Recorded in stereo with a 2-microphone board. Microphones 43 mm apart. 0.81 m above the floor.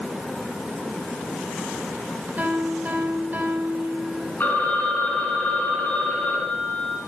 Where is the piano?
35° right (ahead or behind), 4.5 m.